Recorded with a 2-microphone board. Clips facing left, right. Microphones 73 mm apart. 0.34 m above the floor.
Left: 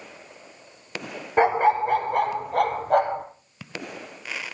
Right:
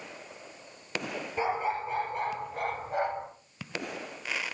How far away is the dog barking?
About 1.8 m.